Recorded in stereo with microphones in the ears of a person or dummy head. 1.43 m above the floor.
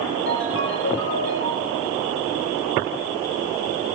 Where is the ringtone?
70° left (ahead or behind), 8.5 m.